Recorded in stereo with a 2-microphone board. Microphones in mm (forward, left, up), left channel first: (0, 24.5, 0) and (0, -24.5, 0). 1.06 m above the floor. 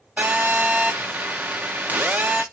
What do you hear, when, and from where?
0.2 s a phone buzzing: 30° right (ahead or behind), 0.6 m